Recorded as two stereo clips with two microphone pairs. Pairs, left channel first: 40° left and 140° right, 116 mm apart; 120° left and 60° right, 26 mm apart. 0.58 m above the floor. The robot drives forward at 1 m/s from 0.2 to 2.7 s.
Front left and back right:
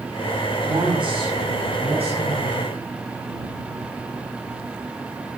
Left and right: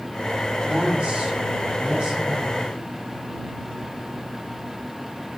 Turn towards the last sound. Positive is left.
turn(degrees=-120)